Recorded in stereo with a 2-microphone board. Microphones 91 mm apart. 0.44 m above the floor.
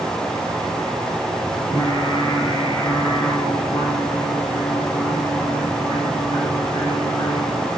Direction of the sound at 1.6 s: 80° left.